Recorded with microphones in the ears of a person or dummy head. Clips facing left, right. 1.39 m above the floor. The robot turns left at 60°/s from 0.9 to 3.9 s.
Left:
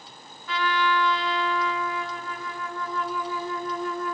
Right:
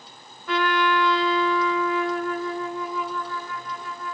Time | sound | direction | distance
0.5 | a trumpet | 55° right | 0.9 m